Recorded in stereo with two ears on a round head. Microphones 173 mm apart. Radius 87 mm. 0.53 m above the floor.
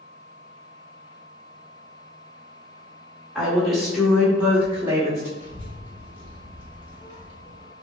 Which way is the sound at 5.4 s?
25° left (ahead or behind).